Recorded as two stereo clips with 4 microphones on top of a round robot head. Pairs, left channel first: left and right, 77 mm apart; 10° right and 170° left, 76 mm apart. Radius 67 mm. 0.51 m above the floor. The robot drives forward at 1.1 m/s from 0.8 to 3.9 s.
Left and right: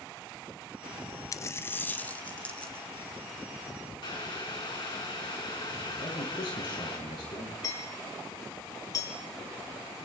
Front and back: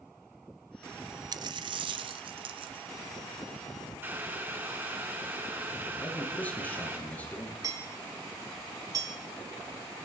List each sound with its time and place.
1.3 s a dropped coin: 135° left, 0.8 m; by 2.9 s 165° left, 2.5 m
4.0 s boiling: 110° left, 5.5 m
6.0 s a man speaking: 60° left, 8.5 m
7.6 s hammering: 130° left, 5 m